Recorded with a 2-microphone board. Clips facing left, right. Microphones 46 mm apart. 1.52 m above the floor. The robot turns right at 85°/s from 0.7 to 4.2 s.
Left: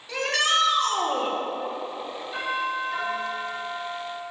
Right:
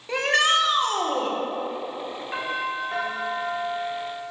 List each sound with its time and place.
0.1 s a shout: 35° right, 1.1 m; by 1.4 s 20° left, 1.1 m
2.3 s a doorbell: 95° right, 1.7 m; by 4.3 s 65° left, 1.7 m